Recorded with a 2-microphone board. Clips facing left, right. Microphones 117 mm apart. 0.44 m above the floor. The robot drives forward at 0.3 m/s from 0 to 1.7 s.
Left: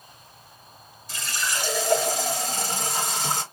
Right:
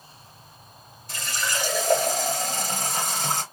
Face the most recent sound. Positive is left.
turn(degrees=-50)  # may be behind; listen again after turning